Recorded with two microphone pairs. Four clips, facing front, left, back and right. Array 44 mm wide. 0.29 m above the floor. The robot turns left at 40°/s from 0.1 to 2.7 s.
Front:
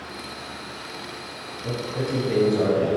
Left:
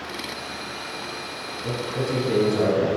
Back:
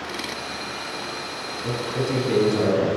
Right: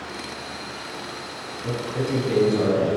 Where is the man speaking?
140° right, 1.8 m; by 2.9 s 175° left, 1.8 m.